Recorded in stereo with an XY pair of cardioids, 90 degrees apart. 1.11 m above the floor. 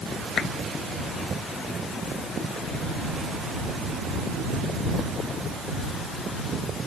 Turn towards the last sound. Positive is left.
turn(degrees=60)